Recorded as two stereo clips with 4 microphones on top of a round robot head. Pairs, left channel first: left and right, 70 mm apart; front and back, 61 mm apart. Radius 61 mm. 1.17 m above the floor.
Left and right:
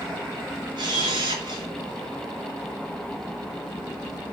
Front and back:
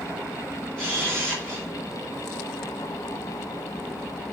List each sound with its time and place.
0.8 s a camera shutter: 85° right, 3.5 m